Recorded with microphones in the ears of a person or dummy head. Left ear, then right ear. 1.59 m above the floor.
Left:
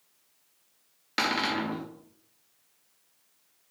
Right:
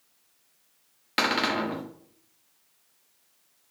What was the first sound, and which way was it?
A cupboard door, 15° right (ahead or behind).